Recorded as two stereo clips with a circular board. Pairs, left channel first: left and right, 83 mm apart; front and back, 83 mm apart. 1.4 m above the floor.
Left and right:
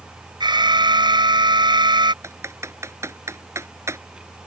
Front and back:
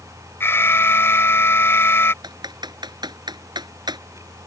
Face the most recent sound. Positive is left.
turn(degrees=-145)